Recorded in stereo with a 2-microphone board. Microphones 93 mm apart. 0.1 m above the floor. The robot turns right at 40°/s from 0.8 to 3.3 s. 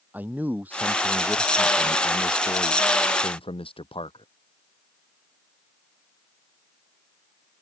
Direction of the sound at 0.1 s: 20° right.